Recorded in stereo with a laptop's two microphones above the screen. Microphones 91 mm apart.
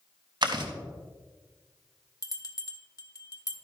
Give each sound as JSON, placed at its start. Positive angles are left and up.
{"t": 0.4, "sound": "chewing", "side_deg": -55, "distance_m": 1.2}
{"t": 2.2, "sound": "a bell", "side_deg": 40, "distance_m": 0.9}